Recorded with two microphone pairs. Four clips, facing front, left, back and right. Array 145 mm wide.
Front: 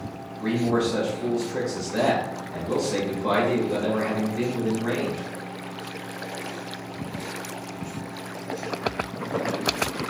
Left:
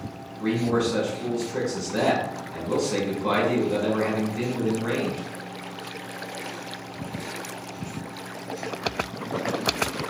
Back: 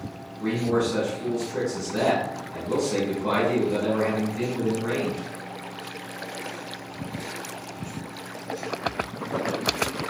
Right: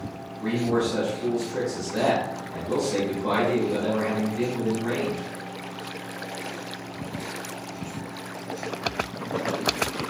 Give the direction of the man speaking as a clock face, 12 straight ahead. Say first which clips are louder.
Left 1 dB, front 1 dB; 9 o'clock.